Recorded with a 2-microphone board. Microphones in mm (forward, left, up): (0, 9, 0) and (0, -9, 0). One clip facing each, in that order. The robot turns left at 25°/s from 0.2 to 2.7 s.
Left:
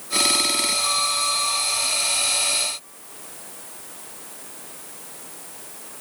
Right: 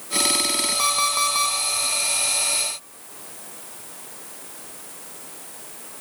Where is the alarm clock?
70° right (ahead or behind), 4 m; by 1.6 s 80° right, 4 m.